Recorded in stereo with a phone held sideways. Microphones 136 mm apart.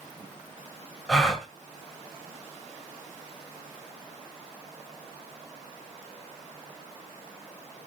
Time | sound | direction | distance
1.1 | a gasp | 5° left (ahead or behind) | 1.7 m